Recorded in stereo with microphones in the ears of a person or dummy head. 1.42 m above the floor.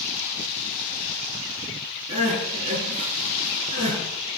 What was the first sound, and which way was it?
Crying, 35° right (ahead or behind).